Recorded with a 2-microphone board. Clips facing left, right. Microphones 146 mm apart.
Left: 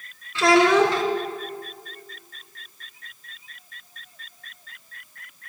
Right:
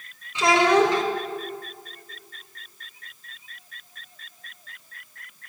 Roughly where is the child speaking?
Centre.